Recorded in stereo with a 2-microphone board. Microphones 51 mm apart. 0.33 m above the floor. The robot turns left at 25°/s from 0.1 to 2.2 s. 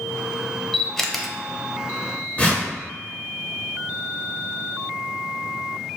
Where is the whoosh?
25° left (ahead or behind), 1.6 m.